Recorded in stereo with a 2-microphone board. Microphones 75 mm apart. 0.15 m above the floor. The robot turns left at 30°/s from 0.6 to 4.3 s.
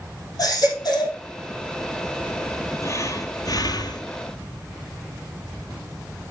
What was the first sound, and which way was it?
A baby crying, 55° left (ahead or behind).